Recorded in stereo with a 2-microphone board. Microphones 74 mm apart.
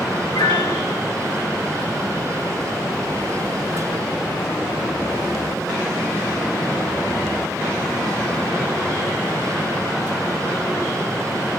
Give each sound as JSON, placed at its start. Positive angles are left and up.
{"t": 0.3, "sound": "a piano", "side_deg": 75, "distance_m": 2.5}